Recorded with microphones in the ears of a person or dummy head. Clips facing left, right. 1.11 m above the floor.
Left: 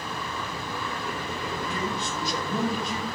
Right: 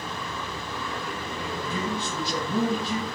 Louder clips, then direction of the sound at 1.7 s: Right 1 dB; centre (ahead or behind).